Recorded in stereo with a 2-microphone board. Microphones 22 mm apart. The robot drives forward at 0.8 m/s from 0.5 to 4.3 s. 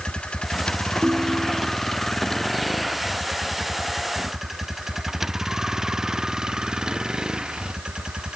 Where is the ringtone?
80° right; by 1.8 s 75° right (ahead or behind).